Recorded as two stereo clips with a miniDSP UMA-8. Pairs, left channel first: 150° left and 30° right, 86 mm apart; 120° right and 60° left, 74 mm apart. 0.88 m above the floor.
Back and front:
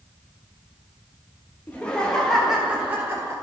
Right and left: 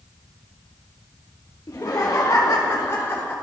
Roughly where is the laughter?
Behind right.